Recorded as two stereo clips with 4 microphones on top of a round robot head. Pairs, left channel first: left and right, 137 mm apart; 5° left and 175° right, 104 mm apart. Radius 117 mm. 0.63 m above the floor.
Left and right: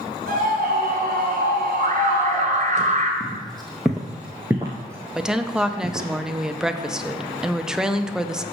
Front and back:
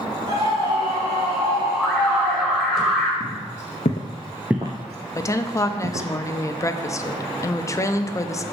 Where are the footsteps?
Straight ahead, 1.9 m; by 6.1 s 170° right, 2.5 m.